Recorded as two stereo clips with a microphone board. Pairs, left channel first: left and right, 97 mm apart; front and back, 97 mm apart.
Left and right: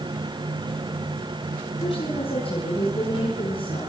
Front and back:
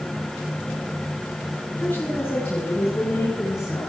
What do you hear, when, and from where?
1.8 s a woman speaking: 75° left, 5 m; by 3.9 s 60° left, 5 m